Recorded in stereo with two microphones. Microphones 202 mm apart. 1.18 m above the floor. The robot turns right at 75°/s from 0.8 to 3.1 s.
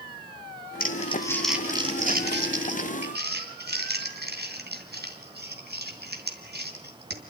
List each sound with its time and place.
0.8 s crumpling: 50° left (ahead or behind), 2.5 m; by 7.2 s 55° right (ahead or behind), 2.5 m